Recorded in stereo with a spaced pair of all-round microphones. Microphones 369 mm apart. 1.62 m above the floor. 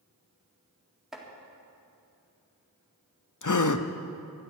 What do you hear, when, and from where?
1.1 s chopping: centre (ahead or behind), 2.0 m
3.4 s a gasp: 55° left (ahead or behind), 0.6 m